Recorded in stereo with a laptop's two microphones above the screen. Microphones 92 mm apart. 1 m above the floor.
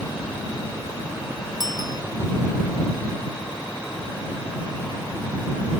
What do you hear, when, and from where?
1.6 s a bicycle bell: 50° right (ahead or behind)